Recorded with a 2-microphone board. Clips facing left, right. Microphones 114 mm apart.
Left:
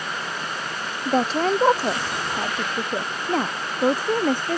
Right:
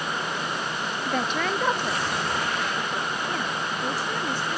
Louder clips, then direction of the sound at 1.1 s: Left 7 dB; 35° left (ahead or behind).